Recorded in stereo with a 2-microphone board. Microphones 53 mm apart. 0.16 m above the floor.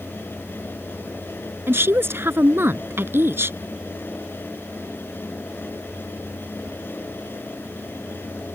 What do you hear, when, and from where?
1.7 s a woman speaking: 50° right (ahead or behind)